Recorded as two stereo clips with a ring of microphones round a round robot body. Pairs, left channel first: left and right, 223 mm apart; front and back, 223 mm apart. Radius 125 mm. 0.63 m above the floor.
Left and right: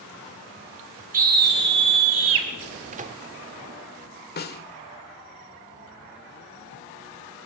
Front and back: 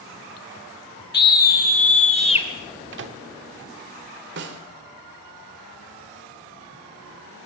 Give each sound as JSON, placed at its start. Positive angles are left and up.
{"t": 1.1, "sound": "a scream", "azimuth_deg": -40, "distance_m": 2.0}
{"t": 2.9, "sound": "a microwave", "azimuth_deg": -145, "distance_m": 1.1}
{"t": 4.4, "sound": "a snare drum", "azimuth_deg": 135, "distance_m": 1.4}